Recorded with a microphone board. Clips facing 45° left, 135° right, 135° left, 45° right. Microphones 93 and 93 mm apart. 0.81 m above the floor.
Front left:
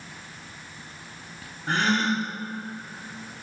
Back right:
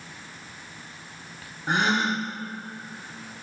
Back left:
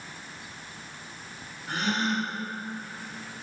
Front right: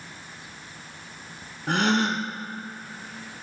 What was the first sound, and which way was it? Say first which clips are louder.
A gasp: even, front right 5 dB; 60° right.